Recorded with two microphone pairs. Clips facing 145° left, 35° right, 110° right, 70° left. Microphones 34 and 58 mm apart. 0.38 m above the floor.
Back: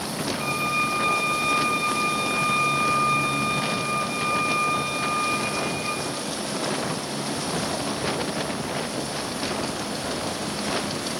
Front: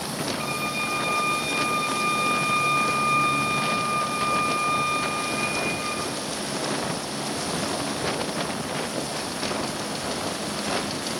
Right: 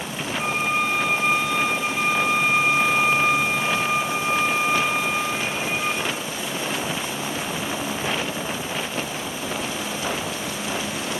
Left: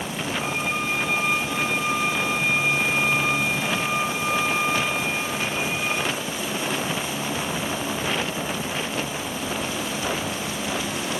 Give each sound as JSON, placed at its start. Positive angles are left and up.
{"t": 0.4, "sound": "a violin", "azimuth_deg": -110, "distance_m": 1.3}